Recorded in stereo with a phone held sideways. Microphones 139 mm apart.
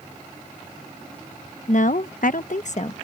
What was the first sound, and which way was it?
A woman speaking, 55° left (ahead or behind).